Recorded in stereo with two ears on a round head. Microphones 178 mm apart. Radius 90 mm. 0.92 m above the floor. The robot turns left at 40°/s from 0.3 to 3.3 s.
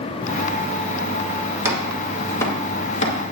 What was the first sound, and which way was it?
Chopping, 15° right (ahead or behind).